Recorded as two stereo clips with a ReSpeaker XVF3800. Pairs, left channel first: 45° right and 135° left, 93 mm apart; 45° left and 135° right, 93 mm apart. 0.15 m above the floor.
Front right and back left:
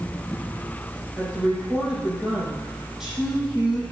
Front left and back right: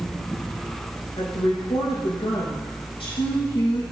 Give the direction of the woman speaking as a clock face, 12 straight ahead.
10 o'clock.